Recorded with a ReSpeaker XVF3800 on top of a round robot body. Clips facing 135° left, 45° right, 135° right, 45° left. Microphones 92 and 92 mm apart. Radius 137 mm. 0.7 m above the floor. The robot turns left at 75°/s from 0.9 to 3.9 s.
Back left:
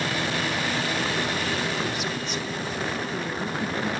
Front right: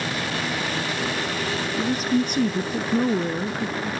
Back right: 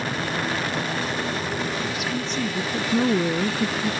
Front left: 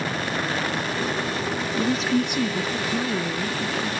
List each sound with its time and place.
1.8 s a woman speaking: 10° left, 0.6 m; by 3.9 s 150° right, 0.6 m